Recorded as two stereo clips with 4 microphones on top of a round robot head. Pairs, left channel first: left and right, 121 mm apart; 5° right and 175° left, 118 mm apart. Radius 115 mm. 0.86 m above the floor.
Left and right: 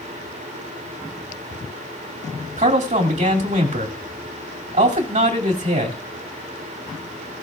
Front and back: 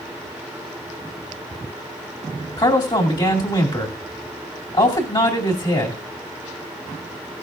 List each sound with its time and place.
2.6 s a man speaking: 60° right, 2.5 m